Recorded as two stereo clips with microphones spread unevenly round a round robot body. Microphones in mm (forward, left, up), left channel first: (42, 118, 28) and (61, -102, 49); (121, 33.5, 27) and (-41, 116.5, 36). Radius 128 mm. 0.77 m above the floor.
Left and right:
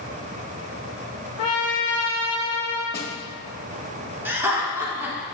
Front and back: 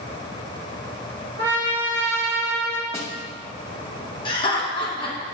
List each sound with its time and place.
1.4 s a trumpet: 150° left, 1.6 m
2.9 s a snare drum: 45° left, 1.0 m
4.2 s laughter: 5° right, 1.0 m